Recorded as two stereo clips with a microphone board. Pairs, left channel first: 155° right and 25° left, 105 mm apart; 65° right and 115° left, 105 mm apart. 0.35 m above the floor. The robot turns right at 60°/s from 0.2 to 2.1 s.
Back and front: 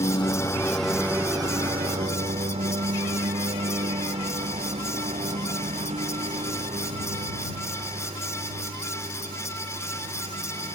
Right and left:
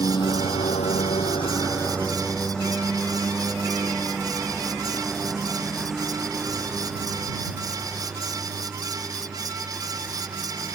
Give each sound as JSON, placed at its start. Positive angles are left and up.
{"t": 0.0, "sound": "a lawn mower", "azimuth_deg": -115}